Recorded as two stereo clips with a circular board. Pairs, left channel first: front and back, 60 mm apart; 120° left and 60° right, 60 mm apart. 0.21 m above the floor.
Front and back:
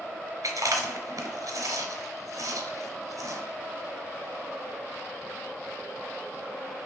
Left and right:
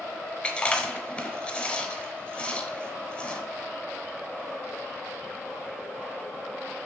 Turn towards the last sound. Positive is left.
turn(degrees=-175)